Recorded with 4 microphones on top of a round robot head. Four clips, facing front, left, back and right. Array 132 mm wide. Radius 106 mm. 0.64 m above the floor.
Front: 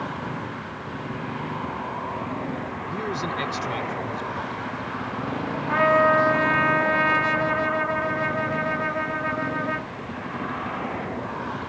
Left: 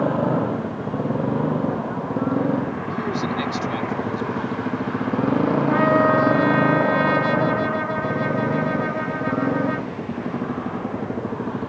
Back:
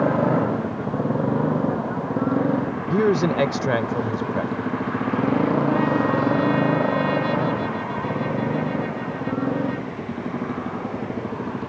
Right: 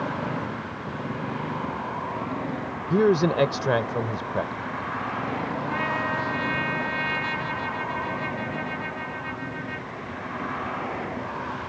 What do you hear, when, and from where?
0.0 s a motorcycle: 140° left; by 11.7 s 120° left
2.9 s a man speaking: 135° right
5.7 s a trumpet: 40° left